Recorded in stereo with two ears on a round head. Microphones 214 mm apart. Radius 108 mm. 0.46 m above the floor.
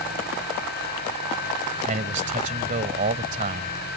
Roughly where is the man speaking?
Right.